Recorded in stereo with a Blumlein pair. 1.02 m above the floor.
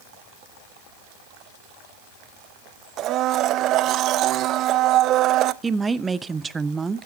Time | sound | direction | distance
3.0 | a blender | 35° right | 0.5 m
5.6 | a woman speaking | 10° right | 0.6 m